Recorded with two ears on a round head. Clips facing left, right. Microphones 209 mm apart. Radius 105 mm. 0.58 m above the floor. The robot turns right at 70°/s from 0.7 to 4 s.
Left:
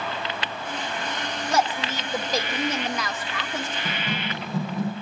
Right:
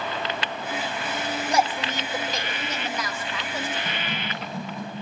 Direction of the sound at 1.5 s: 20° right.